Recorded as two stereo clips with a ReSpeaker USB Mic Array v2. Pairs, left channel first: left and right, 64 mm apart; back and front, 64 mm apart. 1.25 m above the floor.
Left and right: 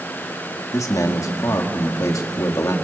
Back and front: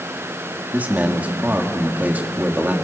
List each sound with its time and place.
0.7 s a man speaking: 65° left, 2.5 m